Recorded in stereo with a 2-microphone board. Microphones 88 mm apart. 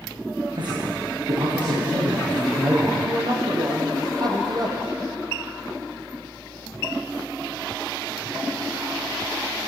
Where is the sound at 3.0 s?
50° right (ahead or behind), 4.5 m.